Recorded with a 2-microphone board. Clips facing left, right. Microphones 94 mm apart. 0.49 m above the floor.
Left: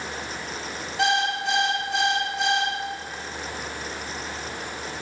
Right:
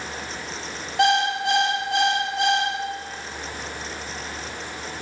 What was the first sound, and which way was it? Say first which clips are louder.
An alarm clock: right 4 dB; 65° right (ahead or behind).